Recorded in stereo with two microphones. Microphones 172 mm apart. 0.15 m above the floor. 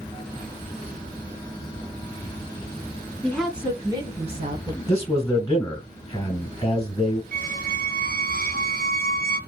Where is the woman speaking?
10° left (ahead or behind), 1.2 m; by 4.8 s 50° right (ahead or behind), 1.7 m.